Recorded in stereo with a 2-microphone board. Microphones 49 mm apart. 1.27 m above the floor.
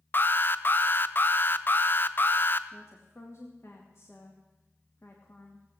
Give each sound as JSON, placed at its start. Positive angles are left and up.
{"t": 0.1, "sound": "an alarm", "side_deg": 40, "distance_m": 0.5}
{"t": 2.7, "sound": "a woman speaking", "side_deg": 65, "distance_m": 2.0}